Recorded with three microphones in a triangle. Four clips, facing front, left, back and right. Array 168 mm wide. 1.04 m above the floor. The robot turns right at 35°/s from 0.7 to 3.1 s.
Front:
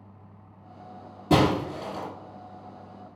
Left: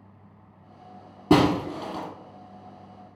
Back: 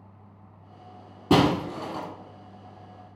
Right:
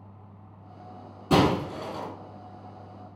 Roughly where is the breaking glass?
Left.